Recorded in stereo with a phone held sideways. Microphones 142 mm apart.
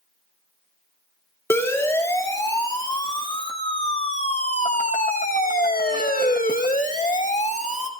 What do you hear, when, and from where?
1.5 s a siren: 20° left (ahead or behind), 2.5 m; by 7.9 s 50° left (ahead or behind), 2.0 m